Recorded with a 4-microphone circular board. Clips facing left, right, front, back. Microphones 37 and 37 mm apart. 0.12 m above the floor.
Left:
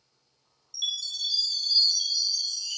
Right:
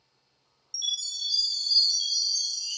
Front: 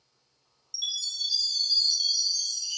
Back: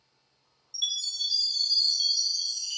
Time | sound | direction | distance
0.7 | a chime | 140° left | 0.9 m